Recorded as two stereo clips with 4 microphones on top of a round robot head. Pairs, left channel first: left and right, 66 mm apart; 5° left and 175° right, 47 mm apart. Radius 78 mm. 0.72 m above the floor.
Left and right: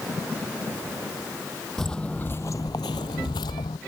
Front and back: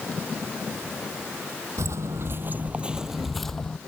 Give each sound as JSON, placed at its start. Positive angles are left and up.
{"t": 1.8, "sound": "footsteps", "azimuth_deg": 175}